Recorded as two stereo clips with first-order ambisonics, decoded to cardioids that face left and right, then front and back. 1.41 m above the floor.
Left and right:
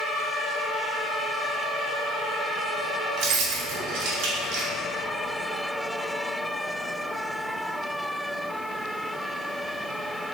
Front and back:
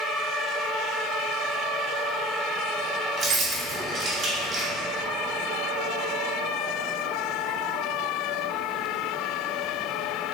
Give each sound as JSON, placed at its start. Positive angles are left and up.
{"t": 3.2, "sound": "keys jangling", "azimuth_deg": -120, "distance_m": 1.0}